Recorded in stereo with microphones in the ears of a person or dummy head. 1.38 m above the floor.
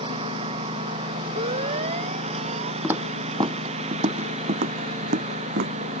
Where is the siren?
35° right (ahead or behind); by 2.7 s 40° right (ahead or behind).